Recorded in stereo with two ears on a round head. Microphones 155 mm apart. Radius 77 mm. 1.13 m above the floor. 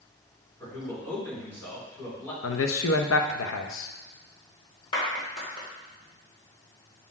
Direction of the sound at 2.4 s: 85° left.